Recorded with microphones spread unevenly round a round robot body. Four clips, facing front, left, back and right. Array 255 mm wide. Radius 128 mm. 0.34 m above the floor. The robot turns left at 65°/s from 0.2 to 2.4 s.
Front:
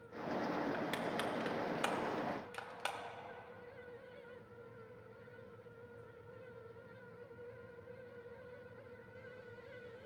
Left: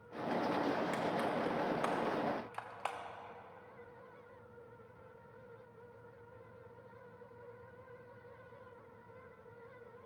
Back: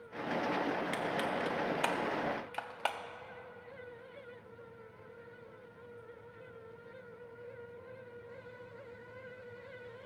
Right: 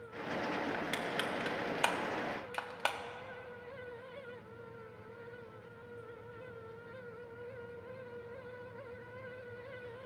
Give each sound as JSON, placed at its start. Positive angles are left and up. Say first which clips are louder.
{"t": 0.7, "sound": "crushing", "louder": "left 2 dB, back 4 dB", "azimuth_deg": -25, "distance_m": 1.1}